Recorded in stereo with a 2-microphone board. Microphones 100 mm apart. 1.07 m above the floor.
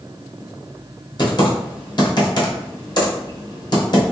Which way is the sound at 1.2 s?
45° left (ahead or behind).